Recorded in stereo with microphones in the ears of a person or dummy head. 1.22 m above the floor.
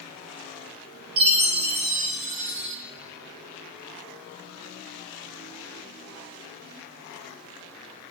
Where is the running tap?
I don't hear a running tap.